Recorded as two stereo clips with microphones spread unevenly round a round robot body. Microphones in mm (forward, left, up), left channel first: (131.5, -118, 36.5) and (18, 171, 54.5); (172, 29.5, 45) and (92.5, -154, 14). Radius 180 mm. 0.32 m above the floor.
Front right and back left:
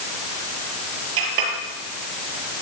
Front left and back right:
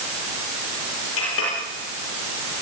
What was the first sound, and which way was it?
A clink, 105° left.